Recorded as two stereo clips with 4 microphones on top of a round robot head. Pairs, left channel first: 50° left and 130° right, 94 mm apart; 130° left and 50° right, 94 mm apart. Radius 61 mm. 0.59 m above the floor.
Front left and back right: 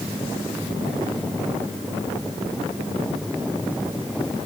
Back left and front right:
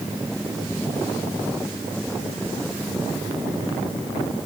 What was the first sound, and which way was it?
Only background noise.